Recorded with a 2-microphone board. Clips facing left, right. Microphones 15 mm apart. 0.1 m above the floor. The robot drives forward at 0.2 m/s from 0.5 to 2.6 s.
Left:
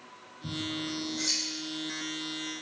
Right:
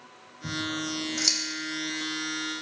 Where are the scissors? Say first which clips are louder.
Right 3 dB; 50° right (ahead or behind), 0.8 m; by 1.4 s 45° right (ahead or behind), 1.0 m.